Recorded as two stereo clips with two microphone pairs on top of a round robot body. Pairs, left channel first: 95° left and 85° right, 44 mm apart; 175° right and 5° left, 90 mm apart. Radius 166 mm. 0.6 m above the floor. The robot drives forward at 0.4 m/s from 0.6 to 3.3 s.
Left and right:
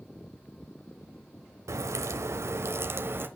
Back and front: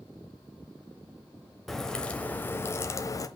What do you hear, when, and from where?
1.7 s a crack: 85° right, 0.9 m; by 3.3 s 120° right, 1.0 m